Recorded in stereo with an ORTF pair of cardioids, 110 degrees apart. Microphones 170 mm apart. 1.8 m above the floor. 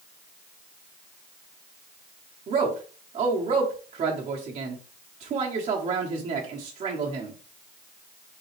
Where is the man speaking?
45° right, 1.4 m.